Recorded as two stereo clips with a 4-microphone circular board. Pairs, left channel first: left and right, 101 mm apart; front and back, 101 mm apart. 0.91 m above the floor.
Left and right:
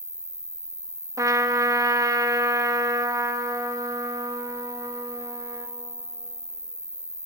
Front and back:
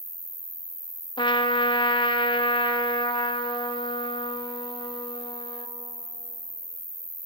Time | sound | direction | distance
0.0 | an insect | 10° left | 1.5 m
1.2 | a trumpet | 35° right | 1.2 m